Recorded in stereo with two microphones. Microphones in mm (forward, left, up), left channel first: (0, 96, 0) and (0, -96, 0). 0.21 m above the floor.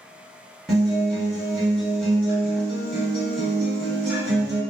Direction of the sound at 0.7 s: 5° left (ahead or behind).